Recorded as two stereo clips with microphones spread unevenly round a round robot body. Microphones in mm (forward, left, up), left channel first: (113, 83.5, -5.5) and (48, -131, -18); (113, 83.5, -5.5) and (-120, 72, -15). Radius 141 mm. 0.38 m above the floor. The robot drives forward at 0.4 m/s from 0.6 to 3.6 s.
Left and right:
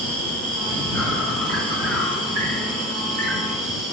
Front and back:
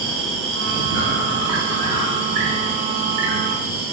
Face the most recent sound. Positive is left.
turn(degrees=-165)